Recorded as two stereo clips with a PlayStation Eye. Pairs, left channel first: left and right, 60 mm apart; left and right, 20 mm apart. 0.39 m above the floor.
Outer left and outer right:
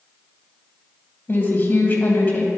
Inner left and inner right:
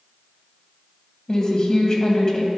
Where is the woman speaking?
35° left (ahead or behind), 1.8 m.